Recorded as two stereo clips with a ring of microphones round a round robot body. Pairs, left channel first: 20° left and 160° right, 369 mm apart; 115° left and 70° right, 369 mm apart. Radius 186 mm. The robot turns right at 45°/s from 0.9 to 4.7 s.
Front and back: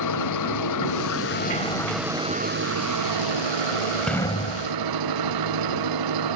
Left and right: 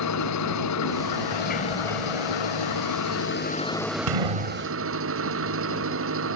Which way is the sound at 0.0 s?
65° left.